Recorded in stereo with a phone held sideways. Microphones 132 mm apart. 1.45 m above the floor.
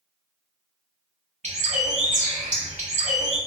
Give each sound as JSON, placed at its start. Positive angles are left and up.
{"t": 1.4, "sound": "a bird", "side_deg": -60, "distance_m": 0.9}